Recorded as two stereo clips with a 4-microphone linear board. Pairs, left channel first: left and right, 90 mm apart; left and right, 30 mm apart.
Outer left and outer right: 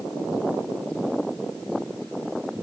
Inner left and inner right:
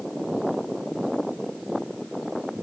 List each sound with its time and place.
Only background noise.